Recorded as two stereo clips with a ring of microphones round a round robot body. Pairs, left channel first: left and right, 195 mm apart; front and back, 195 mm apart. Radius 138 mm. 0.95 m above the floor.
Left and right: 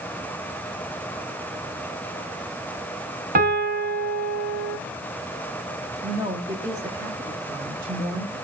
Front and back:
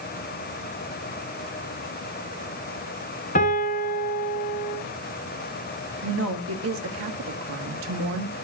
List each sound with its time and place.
3.4 s a piano: 55° right, 1.6 m
6.0 s a woman speaking: 165° right, 1.4 m